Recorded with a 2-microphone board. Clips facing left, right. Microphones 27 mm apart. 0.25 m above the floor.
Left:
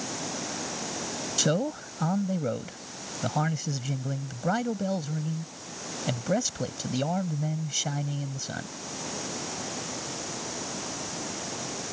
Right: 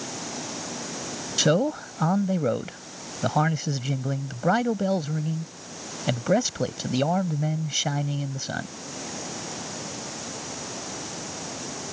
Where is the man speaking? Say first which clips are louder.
Right 5 dB; 20° right (ahead or behind).